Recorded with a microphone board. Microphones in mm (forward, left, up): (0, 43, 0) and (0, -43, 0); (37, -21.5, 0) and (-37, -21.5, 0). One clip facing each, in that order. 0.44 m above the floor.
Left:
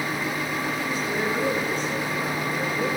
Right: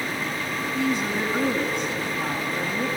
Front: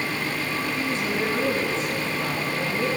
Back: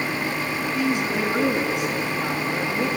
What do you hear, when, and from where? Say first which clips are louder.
0.7 s a woman speaking: right 2 dB, back 5 dB; 100° right, 5 m